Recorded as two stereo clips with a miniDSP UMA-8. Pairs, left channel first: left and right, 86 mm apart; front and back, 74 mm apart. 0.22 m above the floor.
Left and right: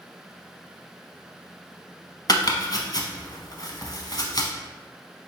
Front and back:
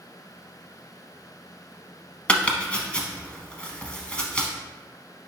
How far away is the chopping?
About 0.6 m.